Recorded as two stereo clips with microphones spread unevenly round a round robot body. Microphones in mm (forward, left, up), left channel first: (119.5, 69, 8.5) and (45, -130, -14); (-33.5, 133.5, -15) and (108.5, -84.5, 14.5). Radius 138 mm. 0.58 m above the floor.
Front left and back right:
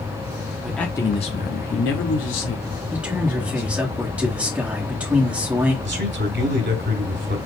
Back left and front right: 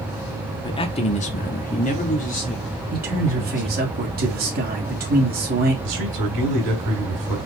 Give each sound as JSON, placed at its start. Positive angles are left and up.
{"t": 0.6, "sound": "a man speaking", "azimuth_deg": 175, "distance_m": 0.8}
{"t": 2.9, "sound": "a man speaking", "azimuth_deg": -45, "distance_m": 1.3}
{"t": 5.8, "sound": "a man speaking", "azimuth_deg": -80, "distance_m": 2.5}